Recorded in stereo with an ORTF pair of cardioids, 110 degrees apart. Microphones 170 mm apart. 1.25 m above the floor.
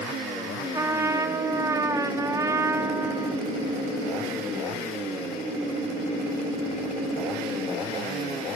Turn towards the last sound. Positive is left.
turn(degrees=-20)